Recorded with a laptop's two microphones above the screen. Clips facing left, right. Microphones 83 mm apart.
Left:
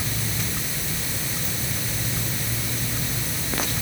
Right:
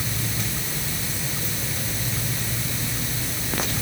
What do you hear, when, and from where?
Only background noise.